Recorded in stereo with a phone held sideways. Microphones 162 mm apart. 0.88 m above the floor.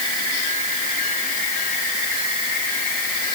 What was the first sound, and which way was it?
Only background noise.